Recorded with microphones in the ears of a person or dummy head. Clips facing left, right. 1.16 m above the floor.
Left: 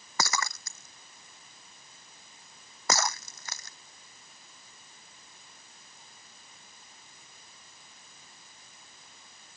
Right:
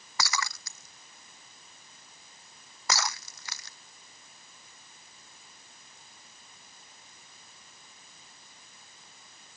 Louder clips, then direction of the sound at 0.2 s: Left 2 dB; 40° left (ahead or behind).